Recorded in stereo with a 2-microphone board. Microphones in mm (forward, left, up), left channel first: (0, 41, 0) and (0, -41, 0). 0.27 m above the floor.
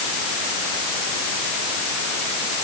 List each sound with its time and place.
Only background noise.